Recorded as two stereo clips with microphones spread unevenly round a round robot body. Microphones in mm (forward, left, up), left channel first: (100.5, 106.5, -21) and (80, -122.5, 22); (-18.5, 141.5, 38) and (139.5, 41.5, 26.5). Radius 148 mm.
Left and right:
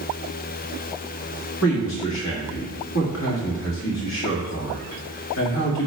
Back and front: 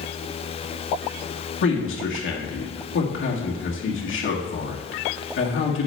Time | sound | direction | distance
1.6 | a man speaking | 130° left | 1.6 m